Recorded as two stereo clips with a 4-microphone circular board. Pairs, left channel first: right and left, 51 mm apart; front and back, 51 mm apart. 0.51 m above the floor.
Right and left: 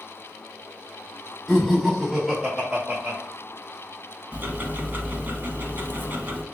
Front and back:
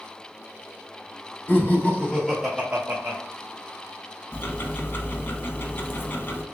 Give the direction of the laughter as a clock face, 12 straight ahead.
12 o'clock.